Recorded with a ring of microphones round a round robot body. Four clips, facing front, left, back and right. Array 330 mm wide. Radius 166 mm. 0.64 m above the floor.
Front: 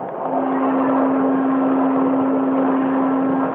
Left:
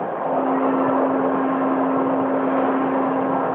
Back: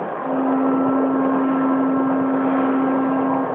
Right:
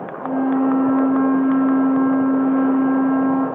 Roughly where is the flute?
Behind right.